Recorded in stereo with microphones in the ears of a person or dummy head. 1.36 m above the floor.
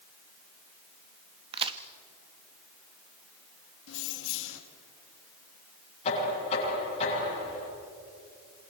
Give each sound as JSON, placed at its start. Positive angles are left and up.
{"t": 1.5, "sound": "a crack", "side_deg": -25, "distance_m": 1.0}
{"t": 3.9, "sound": "keys jangling", "side_deg": 70, "distance_m": 1.9}
{"t": 6.0, "sound": "knocking", "side_deg": 35, "distance_m": 8.5}